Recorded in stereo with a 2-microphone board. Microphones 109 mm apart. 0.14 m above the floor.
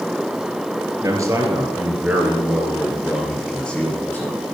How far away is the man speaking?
About 3.5 m.